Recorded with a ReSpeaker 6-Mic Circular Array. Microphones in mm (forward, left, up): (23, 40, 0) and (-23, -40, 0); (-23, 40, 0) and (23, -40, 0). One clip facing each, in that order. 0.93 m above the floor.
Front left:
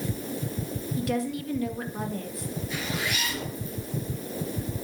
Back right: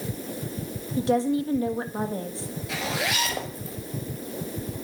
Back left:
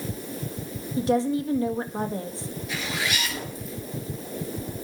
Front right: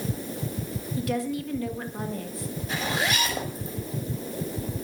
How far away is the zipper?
About 5.5 m.